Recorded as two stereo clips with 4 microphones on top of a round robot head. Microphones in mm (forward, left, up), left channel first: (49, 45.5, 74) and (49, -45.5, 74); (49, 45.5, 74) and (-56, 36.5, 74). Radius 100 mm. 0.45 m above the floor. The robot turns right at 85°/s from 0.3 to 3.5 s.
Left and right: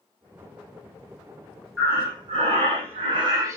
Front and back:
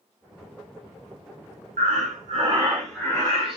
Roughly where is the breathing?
Behind.